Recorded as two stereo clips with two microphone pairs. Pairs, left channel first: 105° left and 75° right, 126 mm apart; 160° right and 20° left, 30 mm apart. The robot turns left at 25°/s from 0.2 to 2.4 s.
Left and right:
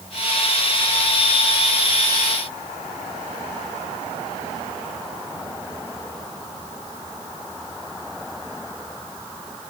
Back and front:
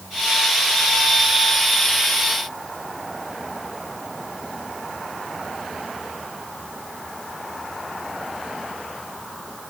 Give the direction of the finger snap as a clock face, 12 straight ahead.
No finger snap in this recording.